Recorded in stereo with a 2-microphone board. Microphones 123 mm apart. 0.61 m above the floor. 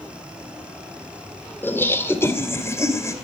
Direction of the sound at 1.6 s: 15° left (ahead or behind).